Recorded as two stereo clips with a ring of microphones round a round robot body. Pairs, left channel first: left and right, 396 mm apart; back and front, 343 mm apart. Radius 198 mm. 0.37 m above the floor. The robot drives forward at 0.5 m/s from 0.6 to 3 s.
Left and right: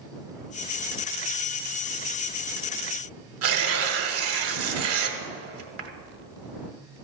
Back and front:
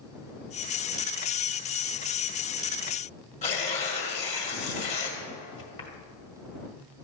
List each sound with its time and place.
3.4 s tearing paper: 120° right, 1.6 m